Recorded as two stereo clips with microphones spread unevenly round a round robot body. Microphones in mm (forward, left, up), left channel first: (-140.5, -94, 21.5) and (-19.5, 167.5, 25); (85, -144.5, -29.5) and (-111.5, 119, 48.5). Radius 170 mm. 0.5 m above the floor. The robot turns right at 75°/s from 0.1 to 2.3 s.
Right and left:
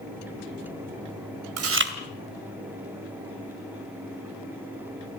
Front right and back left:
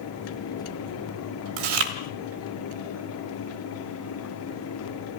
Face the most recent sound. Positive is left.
turn(degrees=150)